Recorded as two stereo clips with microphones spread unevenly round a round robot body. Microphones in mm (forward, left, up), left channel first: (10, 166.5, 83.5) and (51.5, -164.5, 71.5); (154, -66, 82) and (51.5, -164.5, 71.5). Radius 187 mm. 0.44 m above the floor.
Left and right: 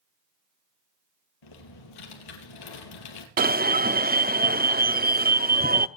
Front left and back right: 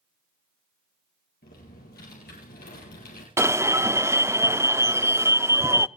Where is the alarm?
95° right, 0.6 m.